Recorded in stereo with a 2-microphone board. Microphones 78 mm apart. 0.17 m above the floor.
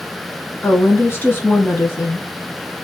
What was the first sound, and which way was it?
A woman speaking, 30° left (ahead or behind).